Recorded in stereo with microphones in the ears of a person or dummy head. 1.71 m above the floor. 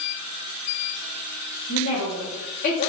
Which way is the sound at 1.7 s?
70° left (ahead or behind).